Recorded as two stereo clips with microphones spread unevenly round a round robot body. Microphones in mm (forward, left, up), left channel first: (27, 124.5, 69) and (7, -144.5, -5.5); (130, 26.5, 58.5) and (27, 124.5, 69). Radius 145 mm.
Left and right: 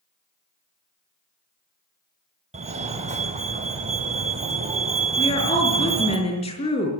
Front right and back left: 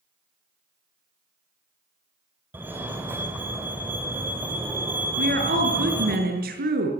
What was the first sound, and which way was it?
A fire alarm, 145° right.